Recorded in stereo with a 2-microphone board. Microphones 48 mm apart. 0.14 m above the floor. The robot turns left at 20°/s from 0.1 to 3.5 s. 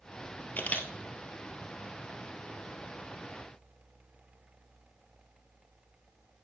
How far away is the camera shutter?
About 1.3 m.